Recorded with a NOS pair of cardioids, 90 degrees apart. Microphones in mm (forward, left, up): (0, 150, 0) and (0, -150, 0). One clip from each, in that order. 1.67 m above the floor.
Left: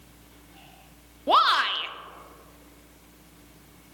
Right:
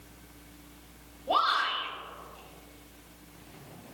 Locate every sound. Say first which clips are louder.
1.3 s a shout: left 6 dB; 70° left, 0.8 m